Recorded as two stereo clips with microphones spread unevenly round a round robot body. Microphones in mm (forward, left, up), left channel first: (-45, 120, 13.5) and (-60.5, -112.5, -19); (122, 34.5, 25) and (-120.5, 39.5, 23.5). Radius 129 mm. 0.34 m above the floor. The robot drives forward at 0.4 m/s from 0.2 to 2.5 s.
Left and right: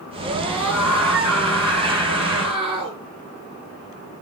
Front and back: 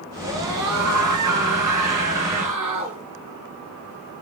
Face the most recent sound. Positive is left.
turn(degrees=180)